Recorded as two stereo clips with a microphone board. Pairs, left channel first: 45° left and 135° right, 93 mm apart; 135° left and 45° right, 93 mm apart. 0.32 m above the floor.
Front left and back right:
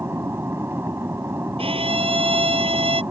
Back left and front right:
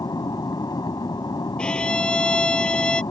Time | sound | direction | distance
0.0 | an aircraft | 165° left | ?
1.6 | a violin | 145° right | ?